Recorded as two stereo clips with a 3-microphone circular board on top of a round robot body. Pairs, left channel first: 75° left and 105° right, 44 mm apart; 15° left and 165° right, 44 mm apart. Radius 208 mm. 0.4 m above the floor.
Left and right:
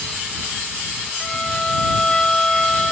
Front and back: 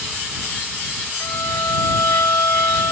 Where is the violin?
Straight ahead.